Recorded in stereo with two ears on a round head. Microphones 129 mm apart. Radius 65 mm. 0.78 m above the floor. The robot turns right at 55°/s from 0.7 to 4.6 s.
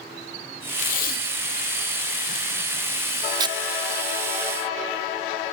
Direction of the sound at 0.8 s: 55° left (ahead or behind).